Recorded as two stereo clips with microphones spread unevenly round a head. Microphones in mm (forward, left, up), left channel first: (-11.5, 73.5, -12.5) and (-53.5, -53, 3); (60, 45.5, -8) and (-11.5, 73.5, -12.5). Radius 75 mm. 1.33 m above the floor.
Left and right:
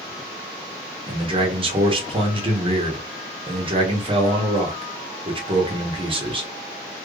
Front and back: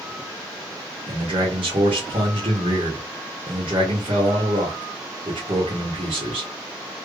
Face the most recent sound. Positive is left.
turn(degrees=-160)